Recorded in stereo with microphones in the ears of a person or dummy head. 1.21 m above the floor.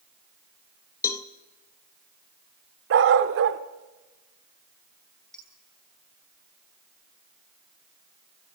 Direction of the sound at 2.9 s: 60° right (ahead or behind).